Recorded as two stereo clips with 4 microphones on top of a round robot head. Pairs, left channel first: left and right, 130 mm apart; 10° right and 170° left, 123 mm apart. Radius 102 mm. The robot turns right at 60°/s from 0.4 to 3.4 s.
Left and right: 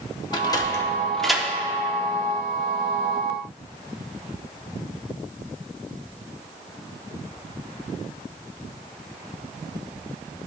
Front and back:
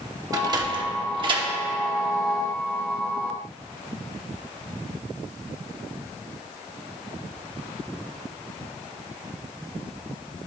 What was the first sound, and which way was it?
A sliding door, 125° left.